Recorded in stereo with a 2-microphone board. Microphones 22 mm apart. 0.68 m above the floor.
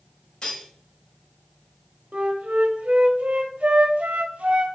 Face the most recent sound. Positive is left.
turn(degrees=-80)